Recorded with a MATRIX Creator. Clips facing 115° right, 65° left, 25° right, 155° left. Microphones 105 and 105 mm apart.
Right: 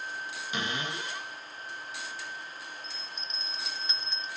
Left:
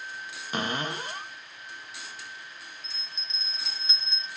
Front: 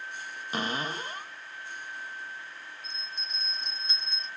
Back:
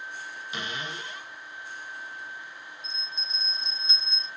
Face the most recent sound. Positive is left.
turn(degrees=5)